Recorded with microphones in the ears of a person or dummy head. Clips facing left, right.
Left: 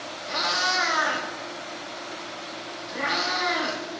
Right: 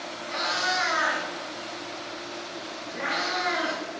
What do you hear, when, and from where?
0.3 s a cat meowing: 60° left (ahead or behind), 1.4 m